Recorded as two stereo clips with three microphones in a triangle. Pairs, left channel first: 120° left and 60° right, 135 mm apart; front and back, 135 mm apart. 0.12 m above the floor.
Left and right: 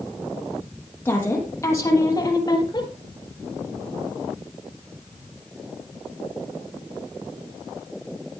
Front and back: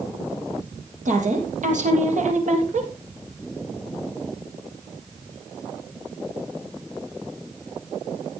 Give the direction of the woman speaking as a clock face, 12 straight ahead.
6 o'clock.